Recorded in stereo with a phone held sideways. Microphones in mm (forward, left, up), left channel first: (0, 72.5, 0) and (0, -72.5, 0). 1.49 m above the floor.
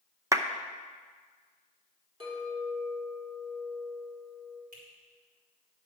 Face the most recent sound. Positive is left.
turn(degrees=-80)